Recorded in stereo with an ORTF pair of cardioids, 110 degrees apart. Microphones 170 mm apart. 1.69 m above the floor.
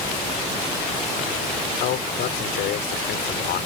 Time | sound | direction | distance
1.8 | a man speaking | 70° left | ?